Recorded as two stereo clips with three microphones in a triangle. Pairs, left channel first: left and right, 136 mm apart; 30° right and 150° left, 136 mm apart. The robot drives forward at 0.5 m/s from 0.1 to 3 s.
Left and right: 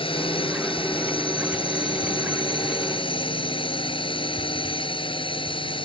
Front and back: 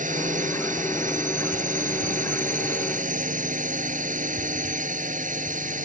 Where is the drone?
140° left.